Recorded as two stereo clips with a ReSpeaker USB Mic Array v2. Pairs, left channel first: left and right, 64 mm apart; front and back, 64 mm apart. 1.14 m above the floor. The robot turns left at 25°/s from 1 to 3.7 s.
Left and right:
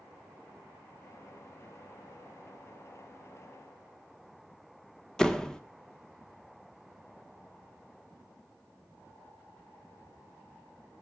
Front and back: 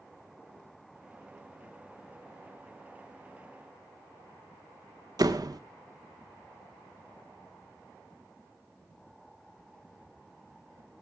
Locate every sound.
5.2 s a door slam: 170° left, 1.4 m